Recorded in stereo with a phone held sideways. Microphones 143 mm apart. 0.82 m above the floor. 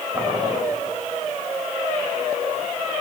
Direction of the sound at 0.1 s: 25° right (ahead or behind).